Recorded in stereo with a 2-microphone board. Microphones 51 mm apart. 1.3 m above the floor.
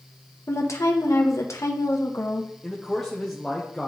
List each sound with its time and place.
0.5 s a woman speaking: 75° left (ahead or behind), 1.1 m
2.6 s a man speaking: 5° left (ahead or behind), 0.8 m